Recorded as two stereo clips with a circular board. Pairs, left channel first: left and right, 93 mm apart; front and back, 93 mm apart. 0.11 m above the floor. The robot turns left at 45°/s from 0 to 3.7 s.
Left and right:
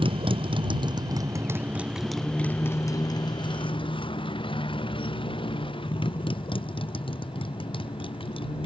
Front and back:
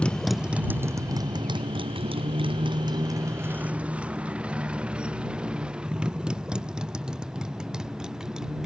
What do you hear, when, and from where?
0.0 s a motorcycle: 75° right; by 8.7 s 95° left